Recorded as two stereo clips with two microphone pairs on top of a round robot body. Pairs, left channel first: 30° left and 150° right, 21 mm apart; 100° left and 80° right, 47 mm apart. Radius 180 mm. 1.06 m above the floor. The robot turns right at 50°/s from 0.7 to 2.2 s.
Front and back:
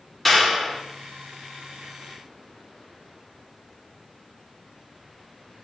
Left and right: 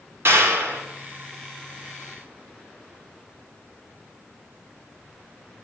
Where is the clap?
55° right, 1.9 m; by 0.8 s 50° right, 1.9 m.